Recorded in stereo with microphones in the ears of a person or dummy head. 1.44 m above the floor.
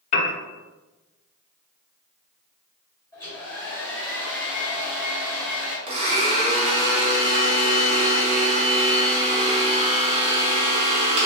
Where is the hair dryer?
15° left (ahead or behind), 1.1 m.